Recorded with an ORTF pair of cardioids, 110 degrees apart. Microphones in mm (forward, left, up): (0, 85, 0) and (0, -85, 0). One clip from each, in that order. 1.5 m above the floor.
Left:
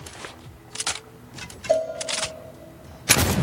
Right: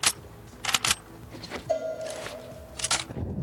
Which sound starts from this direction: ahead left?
A cowbell, at 1.7 s.